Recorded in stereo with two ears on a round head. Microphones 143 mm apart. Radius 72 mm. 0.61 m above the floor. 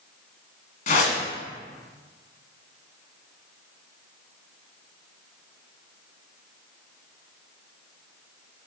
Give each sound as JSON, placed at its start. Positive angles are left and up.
{"t": 0.9, "sound": "a whoosh", "side_deg": 55, "distance_m": 1.5}